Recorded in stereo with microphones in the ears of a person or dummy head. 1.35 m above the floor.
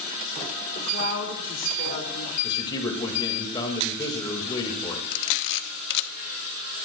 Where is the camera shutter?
70° left (ahead or behind), 1.0 m.